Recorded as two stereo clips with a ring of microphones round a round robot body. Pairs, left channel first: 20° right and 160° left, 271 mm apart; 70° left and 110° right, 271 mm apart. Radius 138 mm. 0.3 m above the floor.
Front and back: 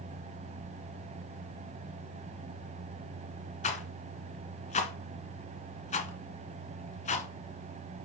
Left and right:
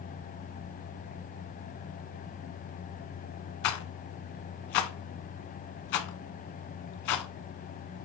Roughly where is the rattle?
Ahead left.